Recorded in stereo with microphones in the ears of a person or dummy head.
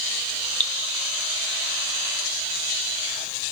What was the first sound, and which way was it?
Dripping, 10° left (ahead or behind).